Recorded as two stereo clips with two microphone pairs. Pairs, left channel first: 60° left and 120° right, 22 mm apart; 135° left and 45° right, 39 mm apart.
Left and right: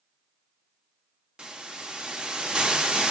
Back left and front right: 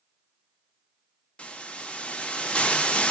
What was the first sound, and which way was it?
A hiss, 165° right.